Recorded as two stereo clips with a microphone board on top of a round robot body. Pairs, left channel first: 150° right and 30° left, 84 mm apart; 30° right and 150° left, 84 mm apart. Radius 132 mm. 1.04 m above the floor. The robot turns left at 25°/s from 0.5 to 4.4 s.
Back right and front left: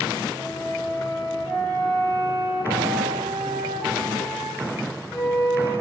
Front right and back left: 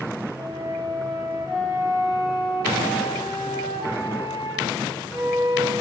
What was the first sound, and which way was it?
A flute, 80° left.